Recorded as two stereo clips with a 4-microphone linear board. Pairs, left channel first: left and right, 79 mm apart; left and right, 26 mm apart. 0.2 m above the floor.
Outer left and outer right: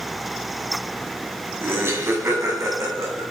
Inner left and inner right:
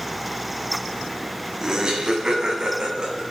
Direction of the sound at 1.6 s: 30° right (ahead or behind).